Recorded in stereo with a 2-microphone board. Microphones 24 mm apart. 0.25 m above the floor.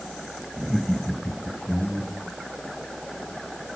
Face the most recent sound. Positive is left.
turn(degrees=20)  # may be behind; listen again after turning